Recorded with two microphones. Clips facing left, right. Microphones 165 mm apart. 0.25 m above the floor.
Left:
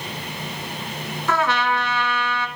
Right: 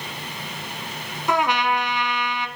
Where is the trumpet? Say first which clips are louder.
Even; 15° right (ahead or behind), 1.1 m.